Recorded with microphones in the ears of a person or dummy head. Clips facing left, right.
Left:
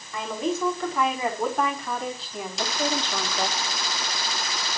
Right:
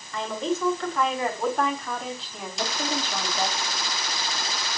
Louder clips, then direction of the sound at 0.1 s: Even; 10° left (ahead or behind).